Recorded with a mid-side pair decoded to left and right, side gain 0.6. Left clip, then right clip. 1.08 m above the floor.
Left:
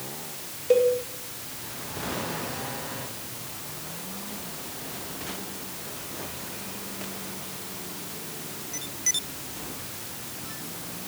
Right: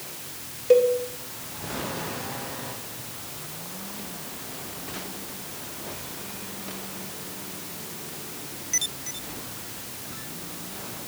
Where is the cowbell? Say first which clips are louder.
Right 2 dB; 10° right, 1.5 m.